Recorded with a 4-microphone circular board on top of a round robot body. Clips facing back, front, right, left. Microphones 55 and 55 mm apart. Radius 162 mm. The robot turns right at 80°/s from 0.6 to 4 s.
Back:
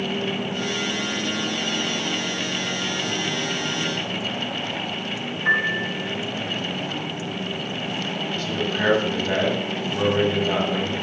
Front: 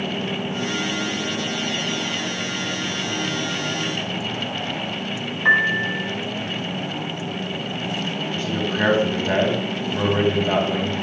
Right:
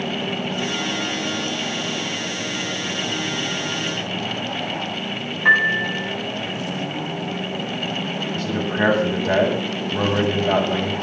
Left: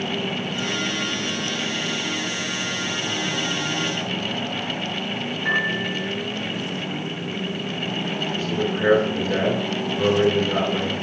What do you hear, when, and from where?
5.5 s a piano: 40° right, 6 m
8.3 s a man speaking: 70° right, 9 m